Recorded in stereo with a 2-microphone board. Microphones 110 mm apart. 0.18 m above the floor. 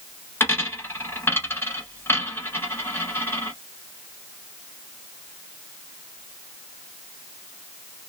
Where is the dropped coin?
20° left (ahead or behind), 0.9 m.